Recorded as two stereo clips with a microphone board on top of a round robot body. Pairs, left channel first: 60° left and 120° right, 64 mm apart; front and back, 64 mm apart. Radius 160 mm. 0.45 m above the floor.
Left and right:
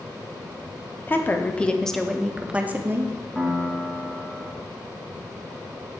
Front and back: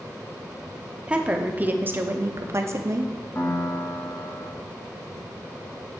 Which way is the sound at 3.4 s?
40° right.